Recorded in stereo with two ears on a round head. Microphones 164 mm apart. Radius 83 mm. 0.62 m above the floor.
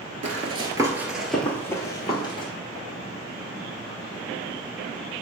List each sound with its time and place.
0.2 s running footsteps: 40° right (ahead or behind), 0.7 m; by 2.5 s 30° left (ahead or behind), 1.2 m